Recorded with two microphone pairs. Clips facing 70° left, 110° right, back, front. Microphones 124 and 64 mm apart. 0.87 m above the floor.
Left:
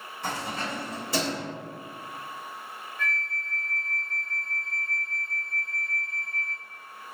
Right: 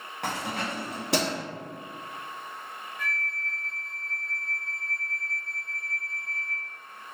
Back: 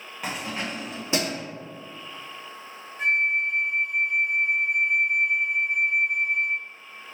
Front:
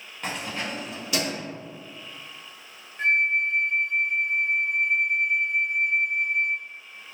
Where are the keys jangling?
100° right, 0.8 m; by 1.4 s 125° right, 1.5 m.